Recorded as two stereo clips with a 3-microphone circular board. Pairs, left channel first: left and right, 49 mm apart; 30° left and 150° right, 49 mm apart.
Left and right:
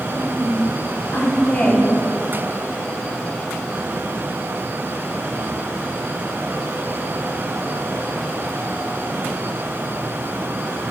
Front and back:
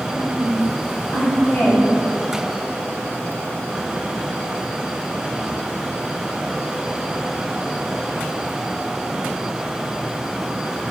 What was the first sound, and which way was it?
A woman speaking, 95° left.